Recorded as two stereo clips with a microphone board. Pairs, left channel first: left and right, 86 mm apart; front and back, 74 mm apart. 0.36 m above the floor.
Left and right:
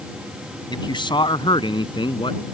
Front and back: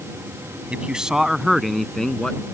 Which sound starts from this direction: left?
A man speaking, at 0.7 s.